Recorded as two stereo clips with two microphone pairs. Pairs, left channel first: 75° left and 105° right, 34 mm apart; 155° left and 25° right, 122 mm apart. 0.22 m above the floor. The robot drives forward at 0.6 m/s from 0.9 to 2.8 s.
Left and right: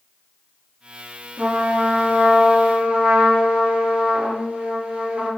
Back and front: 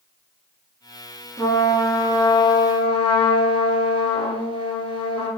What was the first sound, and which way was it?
A trumpet, 140° right.